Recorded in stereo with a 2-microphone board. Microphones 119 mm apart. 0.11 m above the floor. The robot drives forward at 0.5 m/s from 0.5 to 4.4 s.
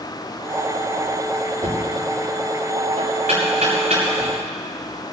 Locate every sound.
1.6 s knocking: 80° right, 7.5 m